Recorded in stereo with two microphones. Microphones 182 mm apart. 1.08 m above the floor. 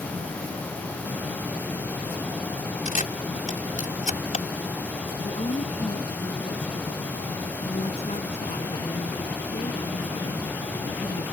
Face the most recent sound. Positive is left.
turn(degrees=40)  # may be behind; listen again after turning